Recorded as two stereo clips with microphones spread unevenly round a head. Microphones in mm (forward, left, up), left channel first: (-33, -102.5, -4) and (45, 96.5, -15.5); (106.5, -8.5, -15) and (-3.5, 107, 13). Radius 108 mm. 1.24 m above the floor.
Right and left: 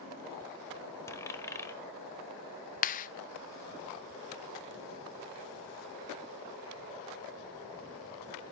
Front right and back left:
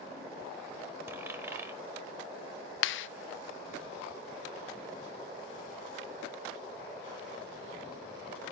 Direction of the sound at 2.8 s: 60° right.